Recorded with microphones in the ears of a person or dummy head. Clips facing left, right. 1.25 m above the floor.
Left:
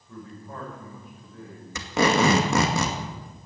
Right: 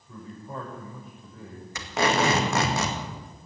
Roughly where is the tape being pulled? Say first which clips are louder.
Left 3 dB; left.